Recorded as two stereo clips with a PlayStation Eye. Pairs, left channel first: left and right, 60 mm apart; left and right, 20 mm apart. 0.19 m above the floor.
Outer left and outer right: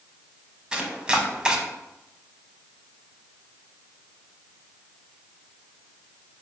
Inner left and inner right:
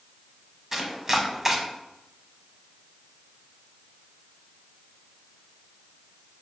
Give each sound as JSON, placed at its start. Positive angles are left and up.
{"t": 0.7, "sound": "chopping", "side_deg": -15, "distance_m": 0.5}